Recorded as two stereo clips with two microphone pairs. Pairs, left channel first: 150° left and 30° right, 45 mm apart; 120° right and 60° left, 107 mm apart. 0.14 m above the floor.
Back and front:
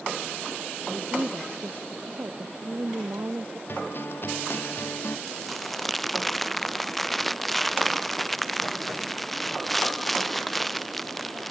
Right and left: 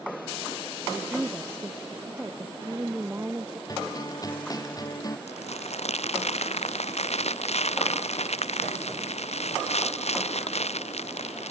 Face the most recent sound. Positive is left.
turn(degrees=-120)